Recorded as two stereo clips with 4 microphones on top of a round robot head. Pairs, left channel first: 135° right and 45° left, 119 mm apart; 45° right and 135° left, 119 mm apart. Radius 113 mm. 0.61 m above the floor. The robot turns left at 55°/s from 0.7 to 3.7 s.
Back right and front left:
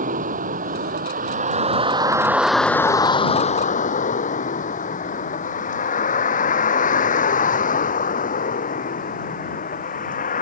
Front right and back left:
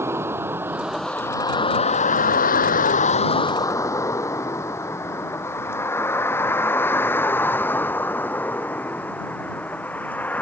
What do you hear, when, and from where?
0.0 s a vehicle: 65° left; by 10.4 s 125° right